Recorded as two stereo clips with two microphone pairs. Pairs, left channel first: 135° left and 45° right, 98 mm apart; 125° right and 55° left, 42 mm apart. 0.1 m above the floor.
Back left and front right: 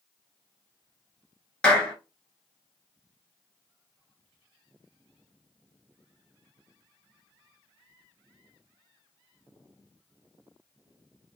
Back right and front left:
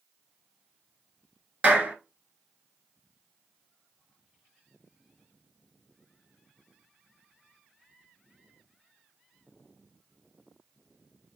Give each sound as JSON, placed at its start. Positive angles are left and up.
{"t": 1.6, "sound": "a clap", "azimuth_deg": 65, "distance_m": 1.1}